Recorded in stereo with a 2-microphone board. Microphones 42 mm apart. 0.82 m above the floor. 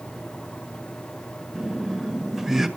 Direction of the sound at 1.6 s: 10° right (ahead or behind).